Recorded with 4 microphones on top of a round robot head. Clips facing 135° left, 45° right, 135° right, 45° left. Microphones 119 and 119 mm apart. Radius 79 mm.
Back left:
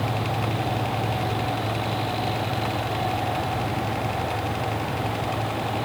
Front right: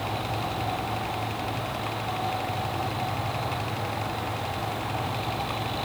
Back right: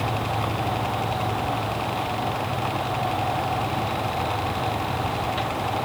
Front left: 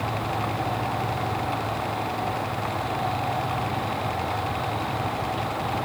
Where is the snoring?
I don't hear snoring.